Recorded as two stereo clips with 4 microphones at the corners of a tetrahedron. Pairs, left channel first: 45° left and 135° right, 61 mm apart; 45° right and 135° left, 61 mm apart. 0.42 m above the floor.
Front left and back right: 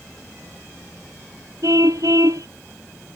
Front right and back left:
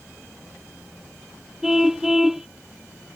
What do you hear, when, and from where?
1.6 s a car horn: 145° right